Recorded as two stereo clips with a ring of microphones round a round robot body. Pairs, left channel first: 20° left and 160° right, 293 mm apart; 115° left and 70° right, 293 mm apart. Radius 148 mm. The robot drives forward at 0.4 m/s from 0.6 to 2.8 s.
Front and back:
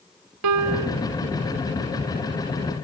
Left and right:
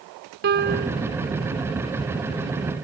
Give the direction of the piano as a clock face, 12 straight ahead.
4 o'clock.